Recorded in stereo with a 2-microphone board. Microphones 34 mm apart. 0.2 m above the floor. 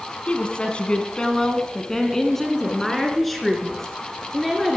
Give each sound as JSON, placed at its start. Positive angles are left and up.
{"t": 0.3, "sound": "a woman speaking", "side_deg": 40, "distance_m": 1.5}